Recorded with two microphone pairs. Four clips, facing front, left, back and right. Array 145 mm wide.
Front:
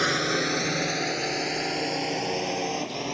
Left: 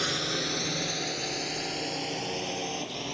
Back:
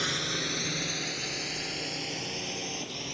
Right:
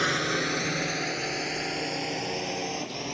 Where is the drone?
15° right; by 3.1 s 5° right.